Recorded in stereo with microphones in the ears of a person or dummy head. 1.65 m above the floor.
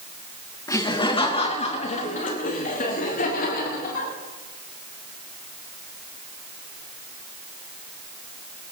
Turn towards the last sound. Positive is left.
turn(degrees=60)  # may be behind; listen again after turning